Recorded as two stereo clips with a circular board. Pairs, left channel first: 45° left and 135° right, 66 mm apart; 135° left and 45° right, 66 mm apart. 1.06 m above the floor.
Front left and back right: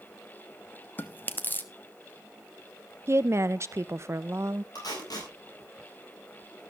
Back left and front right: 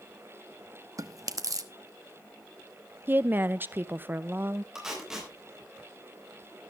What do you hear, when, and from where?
1.0 s chewing: 15° right, 0.9 m
3.1 s a woman speaking: 100° right, 0.7 m
4.8 s tape being pulled: 35° left, 6 m